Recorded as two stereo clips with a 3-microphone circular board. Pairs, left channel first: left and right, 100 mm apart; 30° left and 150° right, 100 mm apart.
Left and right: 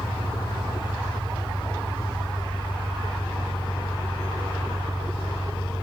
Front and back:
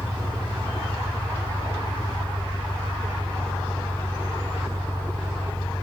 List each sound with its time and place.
0.0 s an engine running: 150° left, 5.5 m